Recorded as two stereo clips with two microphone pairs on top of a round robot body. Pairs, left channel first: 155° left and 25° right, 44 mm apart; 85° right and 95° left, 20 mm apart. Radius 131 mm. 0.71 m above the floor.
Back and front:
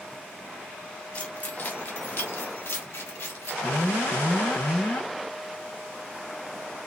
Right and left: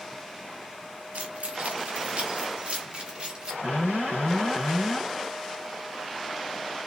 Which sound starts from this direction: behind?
An alarm, at 3.6 s.